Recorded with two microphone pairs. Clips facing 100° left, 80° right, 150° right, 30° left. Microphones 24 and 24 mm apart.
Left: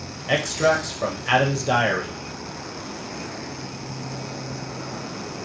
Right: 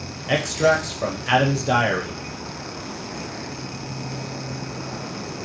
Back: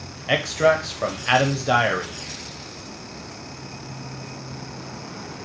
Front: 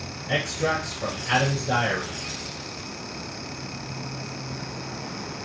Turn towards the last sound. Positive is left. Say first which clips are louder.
# right 1 dB, back 6 dB
turn(degrees=-170)